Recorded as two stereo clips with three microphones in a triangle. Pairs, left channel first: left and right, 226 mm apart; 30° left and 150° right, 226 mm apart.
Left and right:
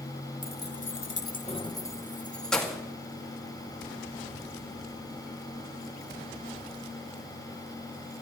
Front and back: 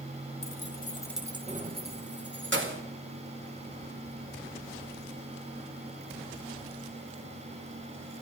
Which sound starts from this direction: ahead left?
Keys jangling, at 0.4 s.